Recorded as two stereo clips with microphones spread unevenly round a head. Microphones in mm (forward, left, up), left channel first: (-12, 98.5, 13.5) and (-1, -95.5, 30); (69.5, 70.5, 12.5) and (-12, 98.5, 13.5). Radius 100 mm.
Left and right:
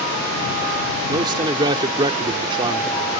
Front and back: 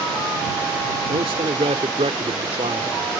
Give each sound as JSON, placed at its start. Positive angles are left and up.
{"t": 1.1, "sound": "a man speaking", "azimuth_deg": -155}